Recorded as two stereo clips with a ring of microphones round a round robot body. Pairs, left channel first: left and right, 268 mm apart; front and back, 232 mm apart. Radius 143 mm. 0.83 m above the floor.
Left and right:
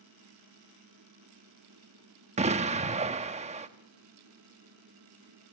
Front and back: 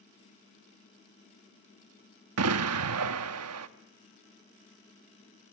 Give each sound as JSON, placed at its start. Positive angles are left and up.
{"t": 2.4, "sound": "an explosion", "azimuth_deg": -155, "distance_m": 1.0}